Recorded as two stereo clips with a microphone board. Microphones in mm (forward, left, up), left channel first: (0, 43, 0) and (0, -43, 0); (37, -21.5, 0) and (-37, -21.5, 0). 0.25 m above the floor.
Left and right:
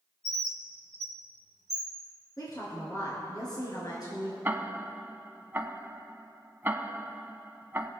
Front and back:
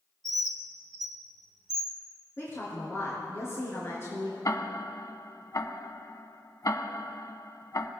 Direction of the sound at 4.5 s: 25° right.